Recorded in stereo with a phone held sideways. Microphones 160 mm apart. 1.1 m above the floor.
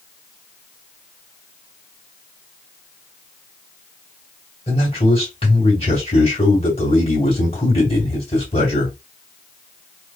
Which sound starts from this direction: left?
A man speaking, at 4.7 s.